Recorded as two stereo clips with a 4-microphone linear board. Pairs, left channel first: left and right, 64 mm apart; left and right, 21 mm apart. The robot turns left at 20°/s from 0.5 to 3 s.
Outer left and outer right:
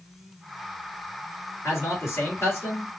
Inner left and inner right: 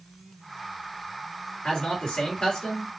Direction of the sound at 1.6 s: 50° left (ahead or behind).